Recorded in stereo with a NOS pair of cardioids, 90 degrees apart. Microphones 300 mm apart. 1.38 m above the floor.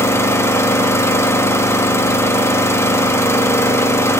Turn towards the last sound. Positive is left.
turn(degrees=10)